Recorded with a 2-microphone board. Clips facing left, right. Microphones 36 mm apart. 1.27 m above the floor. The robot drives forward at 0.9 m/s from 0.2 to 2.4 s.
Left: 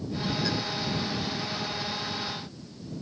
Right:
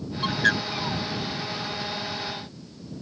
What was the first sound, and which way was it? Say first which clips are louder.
A bird: right 8 dB; 60° right (ahead or behind).